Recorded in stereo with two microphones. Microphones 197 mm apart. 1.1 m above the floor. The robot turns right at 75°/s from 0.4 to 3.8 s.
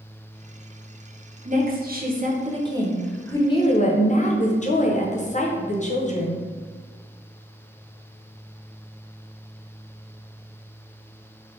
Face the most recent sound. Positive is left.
turn(degrees=55)